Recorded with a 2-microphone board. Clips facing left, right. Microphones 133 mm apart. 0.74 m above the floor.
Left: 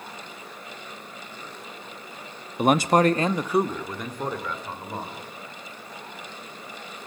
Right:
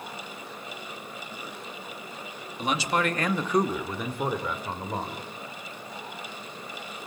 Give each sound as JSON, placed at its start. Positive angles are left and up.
{"t": 2.6, "sound": "a man speaking", "side_deg": 55, "distance_m": 0.8}